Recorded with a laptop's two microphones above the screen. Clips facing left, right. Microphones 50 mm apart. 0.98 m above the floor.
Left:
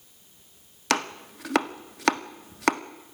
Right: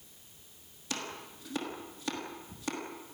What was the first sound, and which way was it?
Chopping, 75° left (ahead or behind).